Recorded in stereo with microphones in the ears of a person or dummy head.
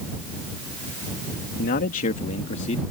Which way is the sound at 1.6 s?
45° left (ahead or behind).